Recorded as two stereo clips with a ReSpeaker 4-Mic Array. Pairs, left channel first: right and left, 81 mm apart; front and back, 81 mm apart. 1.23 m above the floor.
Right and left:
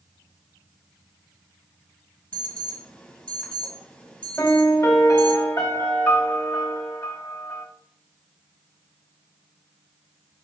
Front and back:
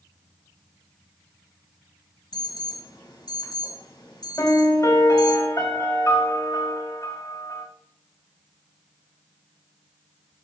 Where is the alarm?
15° right, 1.6 m.